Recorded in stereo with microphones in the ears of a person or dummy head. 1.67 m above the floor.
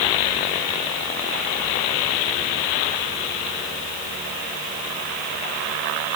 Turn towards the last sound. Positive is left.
No sound to turn to.